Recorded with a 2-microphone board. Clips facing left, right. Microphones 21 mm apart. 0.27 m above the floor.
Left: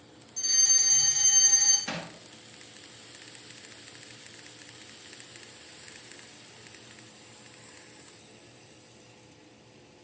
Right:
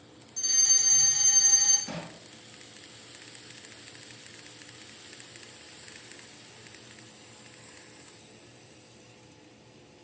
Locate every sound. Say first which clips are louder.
0.4 s a fire alarm: even; 5° right (ahead or behind), 7 m
1.9 s hammering: left 3 dB; 60° left (ahead or behind), 2.5 m